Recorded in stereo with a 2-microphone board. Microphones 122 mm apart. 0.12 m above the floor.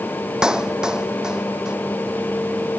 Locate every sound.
0.4 s a clap: 5° right (ahead or behind)